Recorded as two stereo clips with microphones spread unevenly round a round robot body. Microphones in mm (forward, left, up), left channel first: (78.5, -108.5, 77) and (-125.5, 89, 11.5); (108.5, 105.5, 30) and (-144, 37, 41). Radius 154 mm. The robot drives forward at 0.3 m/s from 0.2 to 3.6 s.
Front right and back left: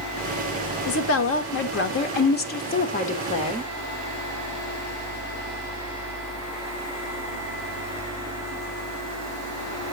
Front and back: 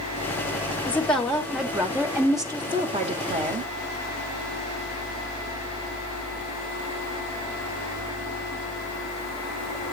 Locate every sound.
0.9 s a woman speaking: 60° right, 1.4 m; by 3.7 s 120° right, 1.5 m